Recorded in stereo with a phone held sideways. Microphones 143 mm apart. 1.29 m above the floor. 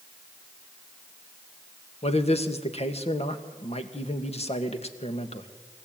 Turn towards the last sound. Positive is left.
turn(degrees=45)  # may be behind; listen again after turning